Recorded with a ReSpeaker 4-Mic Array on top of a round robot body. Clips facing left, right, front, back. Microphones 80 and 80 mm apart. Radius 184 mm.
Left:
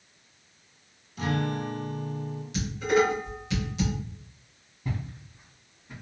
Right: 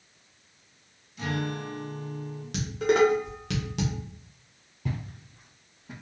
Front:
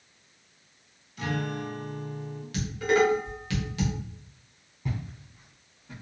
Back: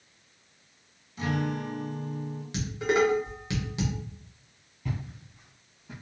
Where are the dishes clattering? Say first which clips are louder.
Right 1 dB, front 2 dB; 110° right, 1.3 m.